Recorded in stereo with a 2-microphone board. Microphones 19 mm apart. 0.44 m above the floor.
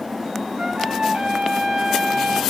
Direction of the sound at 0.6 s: 80° right.